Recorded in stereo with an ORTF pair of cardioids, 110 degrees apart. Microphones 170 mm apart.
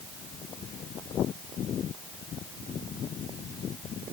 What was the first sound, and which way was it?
Only background noise.